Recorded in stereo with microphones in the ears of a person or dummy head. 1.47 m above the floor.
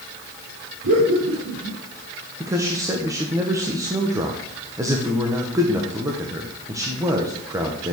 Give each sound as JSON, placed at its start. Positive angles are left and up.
{"t": 0.8, "sound": "laughter", "side_deg": -80, "distance_m": 4.0}
{"t": 2.4, "sound": "a man speaking", "side_deg": -20, "distance_m": 1.3}